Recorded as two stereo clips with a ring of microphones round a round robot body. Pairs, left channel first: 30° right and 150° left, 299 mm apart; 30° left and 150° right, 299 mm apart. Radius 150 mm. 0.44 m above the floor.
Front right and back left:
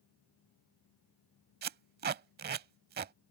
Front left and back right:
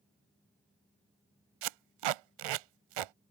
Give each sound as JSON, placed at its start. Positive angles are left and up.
{"t": 1.6, "sound": "tape being pulled", "azimuth_deg": -150}